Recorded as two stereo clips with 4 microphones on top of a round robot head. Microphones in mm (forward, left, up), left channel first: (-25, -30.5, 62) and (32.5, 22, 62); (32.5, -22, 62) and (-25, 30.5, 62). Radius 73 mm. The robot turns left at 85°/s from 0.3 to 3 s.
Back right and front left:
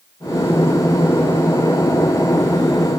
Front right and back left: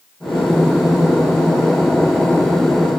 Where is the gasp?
No gasp in this recording.